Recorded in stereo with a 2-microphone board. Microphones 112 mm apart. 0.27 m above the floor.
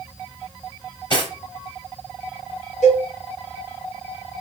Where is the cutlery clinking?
40° left (ahead or behind), 2 m.